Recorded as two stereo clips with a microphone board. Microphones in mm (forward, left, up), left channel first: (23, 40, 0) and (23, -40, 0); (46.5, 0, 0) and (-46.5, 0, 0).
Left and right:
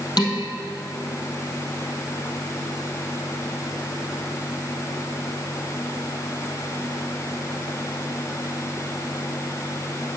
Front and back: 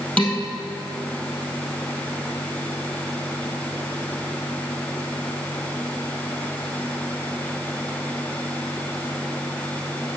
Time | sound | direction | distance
0.2 | dishes clattering | 75° left | 2.5 m